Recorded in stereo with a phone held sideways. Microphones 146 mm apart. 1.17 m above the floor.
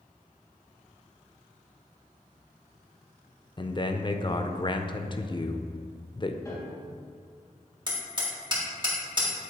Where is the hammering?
35° right (ahead or behind), 2 m.